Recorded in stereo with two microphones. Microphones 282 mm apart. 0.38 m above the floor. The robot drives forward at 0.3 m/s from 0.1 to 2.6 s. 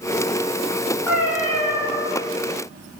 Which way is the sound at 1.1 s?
10° left (ahead or behind).